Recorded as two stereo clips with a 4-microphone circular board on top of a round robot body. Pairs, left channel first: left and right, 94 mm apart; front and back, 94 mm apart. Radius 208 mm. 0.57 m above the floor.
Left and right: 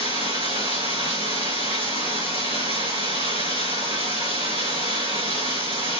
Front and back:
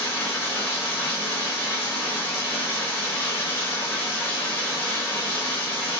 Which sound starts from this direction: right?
Running water, at 0.0 s.